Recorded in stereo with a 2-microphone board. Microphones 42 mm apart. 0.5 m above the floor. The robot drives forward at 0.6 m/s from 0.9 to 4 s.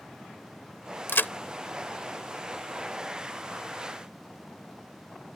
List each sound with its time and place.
1.1 s a crack: 60° left (ahead or behind); by 1.3 s 55° left (ahead or behind)